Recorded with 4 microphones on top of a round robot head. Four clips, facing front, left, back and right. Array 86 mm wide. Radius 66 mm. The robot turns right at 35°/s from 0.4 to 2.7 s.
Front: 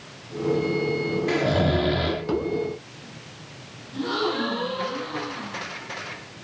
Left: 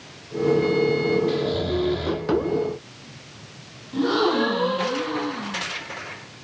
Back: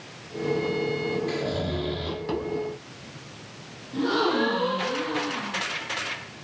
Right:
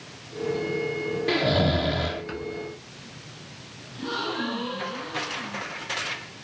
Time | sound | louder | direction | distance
1.3 | snoring | right 1 dB, front 6 dB | 50° right | 0.7 m
3.9 | a gasp | left 10 dB, back 2 dB | 105° left | 6 m